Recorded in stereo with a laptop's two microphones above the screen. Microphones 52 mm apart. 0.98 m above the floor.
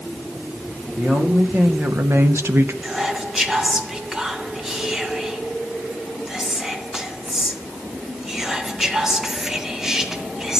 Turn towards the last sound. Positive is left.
turn(degrees=-5)  # may be behind; listen again after turning